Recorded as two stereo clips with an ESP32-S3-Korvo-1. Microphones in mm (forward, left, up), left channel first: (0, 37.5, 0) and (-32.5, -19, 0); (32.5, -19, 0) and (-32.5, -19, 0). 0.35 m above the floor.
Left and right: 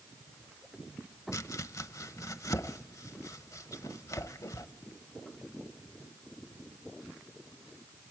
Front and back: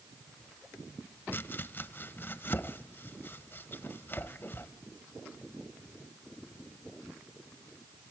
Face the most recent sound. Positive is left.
turn(degrees=50)